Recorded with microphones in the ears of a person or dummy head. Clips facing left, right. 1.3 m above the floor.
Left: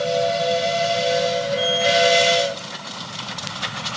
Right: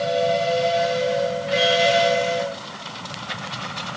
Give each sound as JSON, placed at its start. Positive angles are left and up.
{"t": 1.6, "sound": "a sliding door", "side_deg": -55, "distance_m": 6.0}